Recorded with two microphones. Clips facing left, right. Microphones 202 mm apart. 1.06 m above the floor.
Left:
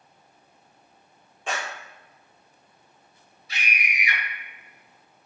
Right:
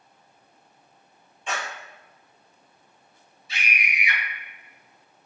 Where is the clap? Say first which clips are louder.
Left 1 dB; 85° left, 1.9 m.